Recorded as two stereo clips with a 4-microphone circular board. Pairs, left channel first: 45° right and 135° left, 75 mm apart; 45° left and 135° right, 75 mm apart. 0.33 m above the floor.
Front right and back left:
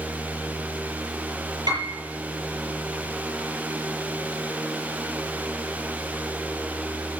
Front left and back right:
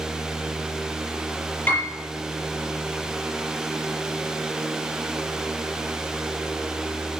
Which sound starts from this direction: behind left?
A piano, at 1.7 s.